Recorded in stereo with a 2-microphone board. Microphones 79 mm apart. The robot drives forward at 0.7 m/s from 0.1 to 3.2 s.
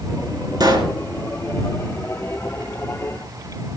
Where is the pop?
60° right (ahead or behind), 2 m; by 1.0 s 55° right (ahead or behind), 2 m.